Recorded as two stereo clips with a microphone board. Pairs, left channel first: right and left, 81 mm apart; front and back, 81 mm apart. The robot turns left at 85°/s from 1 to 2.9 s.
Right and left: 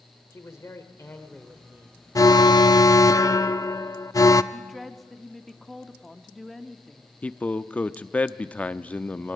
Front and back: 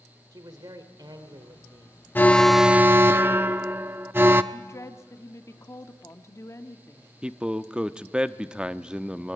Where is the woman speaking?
5° right, 1.1 m.